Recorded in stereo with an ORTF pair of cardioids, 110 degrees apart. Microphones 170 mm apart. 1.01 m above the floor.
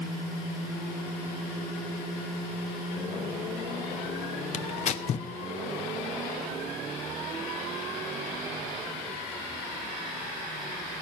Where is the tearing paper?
45° left, 0.9 m.